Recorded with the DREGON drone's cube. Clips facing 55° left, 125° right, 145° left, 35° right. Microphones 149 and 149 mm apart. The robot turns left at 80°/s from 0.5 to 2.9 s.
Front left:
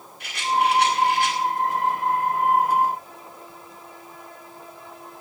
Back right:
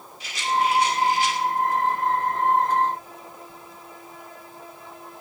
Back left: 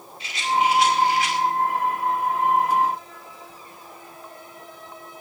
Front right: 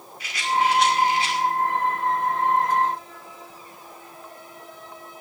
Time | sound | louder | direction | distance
0.2 | a rattle | front left 1 dB, back left 1 dB | 80° left | 5 m